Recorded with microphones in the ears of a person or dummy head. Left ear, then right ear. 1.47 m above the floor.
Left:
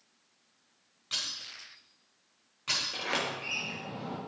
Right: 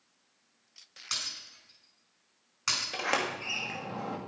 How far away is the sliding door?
About 2.5 m.